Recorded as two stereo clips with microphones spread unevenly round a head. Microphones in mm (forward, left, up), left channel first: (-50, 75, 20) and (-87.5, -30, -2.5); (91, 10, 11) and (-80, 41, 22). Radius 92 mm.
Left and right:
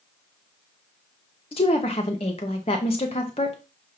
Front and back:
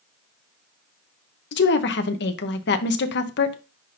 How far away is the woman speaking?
About 1.0 m.